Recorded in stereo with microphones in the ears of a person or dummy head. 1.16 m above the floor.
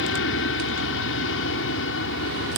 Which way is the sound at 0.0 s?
65° left (ahead or behind).